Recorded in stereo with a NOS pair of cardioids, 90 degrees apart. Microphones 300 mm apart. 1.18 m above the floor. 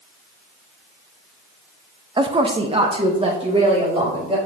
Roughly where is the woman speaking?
Ahead.